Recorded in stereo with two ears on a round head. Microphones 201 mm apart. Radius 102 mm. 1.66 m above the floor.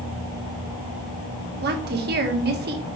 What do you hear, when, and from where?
1.6 s a woman speaking: 45° right (ahead or behind), 1.6 m